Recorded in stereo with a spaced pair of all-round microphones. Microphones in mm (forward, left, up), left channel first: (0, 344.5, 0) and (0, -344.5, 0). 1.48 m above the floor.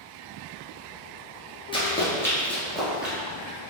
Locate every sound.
1.7 s running footsteps: 10° left (ahead or behind), 1.6 m; by 3.1 s centre (ahead or behind), 2.0 m